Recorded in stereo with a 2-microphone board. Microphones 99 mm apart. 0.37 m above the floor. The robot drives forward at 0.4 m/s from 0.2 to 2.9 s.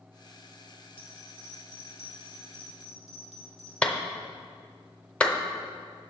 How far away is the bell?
About 3 m.